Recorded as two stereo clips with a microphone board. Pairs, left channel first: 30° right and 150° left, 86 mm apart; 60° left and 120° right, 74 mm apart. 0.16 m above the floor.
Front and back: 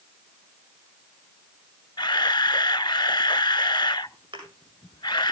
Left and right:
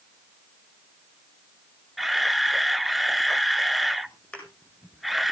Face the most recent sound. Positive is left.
turn(degrees=130)